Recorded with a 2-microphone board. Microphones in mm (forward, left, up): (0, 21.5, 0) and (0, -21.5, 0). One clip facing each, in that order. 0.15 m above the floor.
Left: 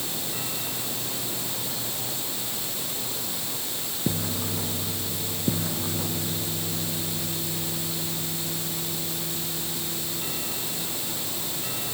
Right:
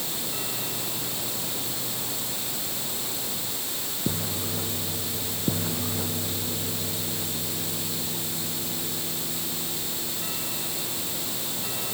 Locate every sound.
Only background noise.